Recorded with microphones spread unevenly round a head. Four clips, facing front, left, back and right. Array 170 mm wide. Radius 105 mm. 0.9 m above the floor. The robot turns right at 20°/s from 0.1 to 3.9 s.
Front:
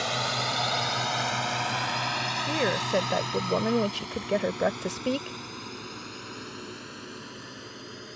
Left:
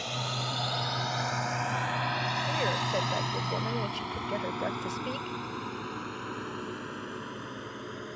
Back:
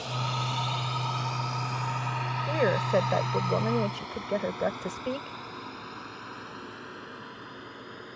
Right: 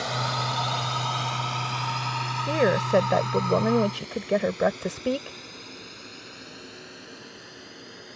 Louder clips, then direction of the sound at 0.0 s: Right 7 dB, front 3 dB; 25° right.